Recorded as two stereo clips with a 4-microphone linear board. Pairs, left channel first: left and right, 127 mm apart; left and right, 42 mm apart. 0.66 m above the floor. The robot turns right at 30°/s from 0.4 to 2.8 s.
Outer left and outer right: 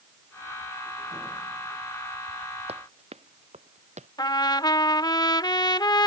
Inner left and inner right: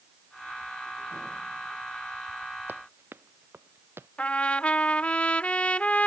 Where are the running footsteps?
55° right (ahead or behind); by 4.1 s 65° right (ahead or behind).